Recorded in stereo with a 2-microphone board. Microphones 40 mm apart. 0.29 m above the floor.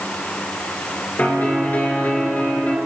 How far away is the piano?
About 4.5 m.